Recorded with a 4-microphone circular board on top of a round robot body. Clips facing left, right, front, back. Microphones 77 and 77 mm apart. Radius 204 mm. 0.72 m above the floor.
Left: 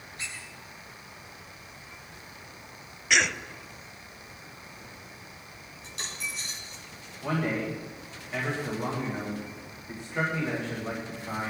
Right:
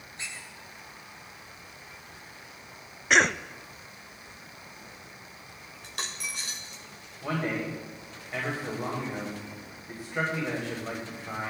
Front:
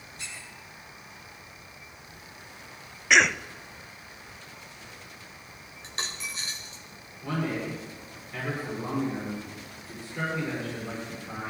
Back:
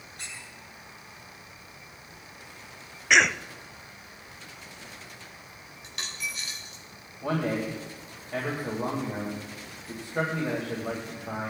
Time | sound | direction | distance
0.2 | a squeak | 155° right | 8.5 m
3.1 | a cough | 90° right | 0.8 m
5.8 | a dropped coin | 60° right | 1.0 m
7.2 | a man speaking | 175° right | 4 m